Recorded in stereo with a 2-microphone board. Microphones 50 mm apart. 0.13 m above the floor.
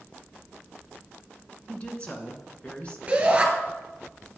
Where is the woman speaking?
25° left (ahead or behind), 1.3 m.